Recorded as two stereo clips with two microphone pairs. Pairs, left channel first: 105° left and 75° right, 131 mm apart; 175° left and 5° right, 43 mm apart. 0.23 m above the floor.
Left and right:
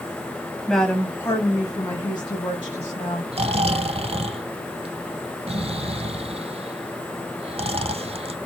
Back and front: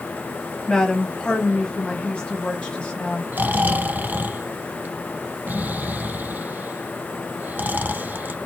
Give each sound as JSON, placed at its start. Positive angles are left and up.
{"t": 0.7, "sound": "a woman speaking", "azimuth_deg": -170, "distance_m": 1.0}
{"t": 3.3, "sound": "snoring", "azimuth_deg": -45, "distance_m": 0.5}